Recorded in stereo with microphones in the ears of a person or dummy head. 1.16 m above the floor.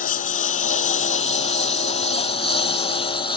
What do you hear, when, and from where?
0.0 s a lawn mower: 40° left (ahead or behind); by 3.4 s 20° left (ahead or behind)